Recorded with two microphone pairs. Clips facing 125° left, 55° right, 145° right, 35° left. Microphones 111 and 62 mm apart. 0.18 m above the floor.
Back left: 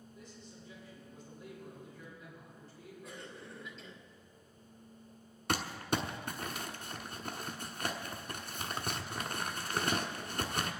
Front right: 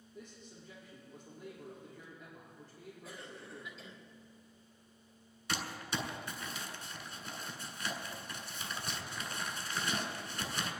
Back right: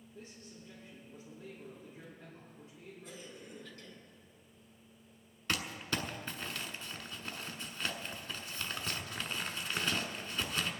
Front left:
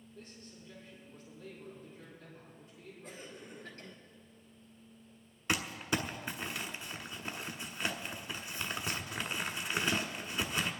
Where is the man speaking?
90° right, 6 m.